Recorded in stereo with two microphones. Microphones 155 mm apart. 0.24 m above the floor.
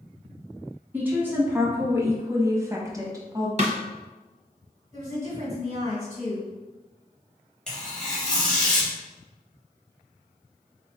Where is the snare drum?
45° right (ahead or behind), 0.7 m.